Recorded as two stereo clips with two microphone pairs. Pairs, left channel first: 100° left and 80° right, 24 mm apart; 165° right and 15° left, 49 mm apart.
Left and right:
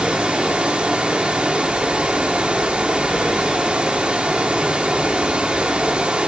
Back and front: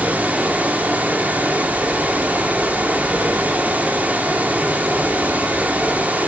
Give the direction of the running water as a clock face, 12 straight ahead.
1 o'clock.